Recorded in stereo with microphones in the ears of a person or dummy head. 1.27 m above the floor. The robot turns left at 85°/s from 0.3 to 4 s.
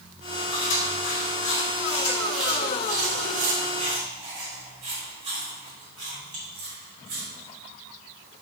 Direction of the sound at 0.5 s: 20° left (ahead or behind).